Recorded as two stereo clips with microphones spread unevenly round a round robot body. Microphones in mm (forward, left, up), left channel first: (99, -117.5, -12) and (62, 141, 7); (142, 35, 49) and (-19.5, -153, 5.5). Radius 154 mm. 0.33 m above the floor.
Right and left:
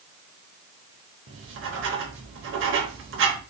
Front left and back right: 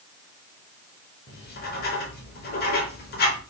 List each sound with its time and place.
1.3 s writing: 95° left, 1.1 m